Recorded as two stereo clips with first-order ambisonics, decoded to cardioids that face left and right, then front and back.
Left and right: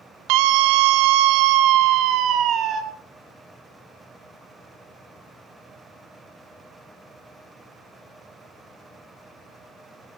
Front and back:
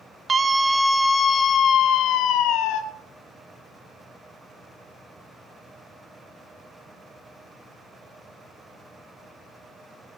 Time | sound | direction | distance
0.3 | a scream | 105° right | 1.2 m